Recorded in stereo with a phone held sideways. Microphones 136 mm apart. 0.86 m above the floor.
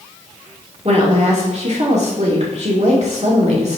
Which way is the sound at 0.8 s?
50° right (ahead or behind).